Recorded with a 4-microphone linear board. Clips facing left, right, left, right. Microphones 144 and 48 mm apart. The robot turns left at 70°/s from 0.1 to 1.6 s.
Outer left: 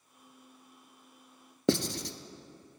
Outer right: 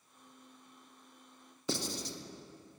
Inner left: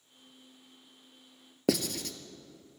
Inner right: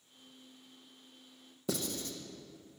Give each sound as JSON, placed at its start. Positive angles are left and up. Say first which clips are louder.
{"t": 1.7, "sound": "writing", "louder": "outer left 9 dB, inner left 7 dB", "side_deg": 90, "distance_m": 0.7}